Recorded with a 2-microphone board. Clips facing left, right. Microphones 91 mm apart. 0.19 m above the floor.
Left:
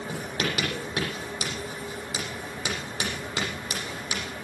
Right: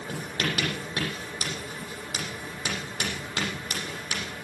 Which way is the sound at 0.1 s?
10° left (ahead or behind).